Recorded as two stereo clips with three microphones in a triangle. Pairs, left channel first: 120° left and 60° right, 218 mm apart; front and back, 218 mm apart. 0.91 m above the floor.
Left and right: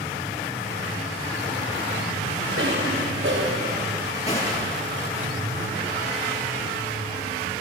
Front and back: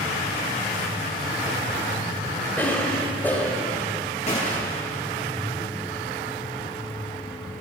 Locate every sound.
2.6 s a cough: 80° right, 5.5 m
4.3 s a gunshot: 60° left, 8.5 m